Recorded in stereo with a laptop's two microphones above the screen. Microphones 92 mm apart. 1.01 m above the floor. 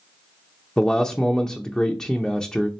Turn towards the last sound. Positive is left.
turn(degrees=5)  # may be behind; listen again after turning